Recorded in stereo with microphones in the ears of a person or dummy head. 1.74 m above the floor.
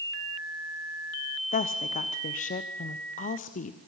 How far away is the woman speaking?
About 0.9 m.